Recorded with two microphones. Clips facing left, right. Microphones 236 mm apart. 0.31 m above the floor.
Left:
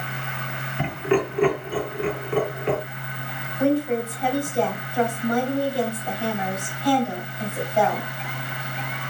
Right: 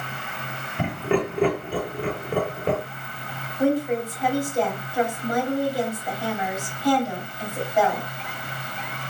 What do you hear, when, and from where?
0.8 s laughter: 45° right (ahead or behind), 1.1 m
3.6 s a woman speaking: 5° right (ahead or behind), 2 m